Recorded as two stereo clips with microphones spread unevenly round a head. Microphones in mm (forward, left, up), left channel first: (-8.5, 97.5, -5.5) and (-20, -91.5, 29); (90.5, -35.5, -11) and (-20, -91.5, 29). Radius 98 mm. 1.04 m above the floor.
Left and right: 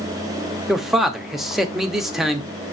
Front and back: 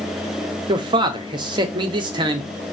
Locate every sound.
0.7 s a man speaking: 155° left, 0.6 m